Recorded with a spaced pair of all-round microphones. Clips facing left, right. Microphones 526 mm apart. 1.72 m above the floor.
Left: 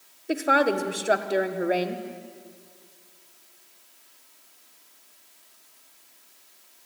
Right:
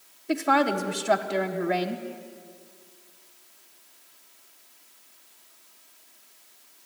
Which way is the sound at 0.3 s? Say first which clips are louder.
Left 1 dB; 20° right (ahead or behind).